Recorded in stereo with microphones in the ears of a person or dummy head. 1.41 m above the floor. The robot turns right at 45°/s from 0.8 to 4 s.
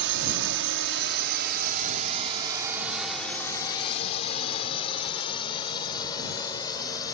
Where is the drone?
65° right (ahead or behind); by 7.1 s 20° left (ahead or behind).